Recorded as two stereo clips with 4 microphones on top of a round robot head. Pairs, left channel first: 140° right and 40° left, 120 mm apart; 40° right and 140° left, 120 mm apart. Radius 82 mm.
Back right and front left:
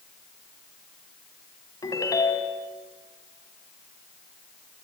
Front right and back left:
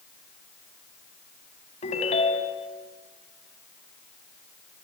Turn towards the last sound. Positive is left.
turn(degrees=-80)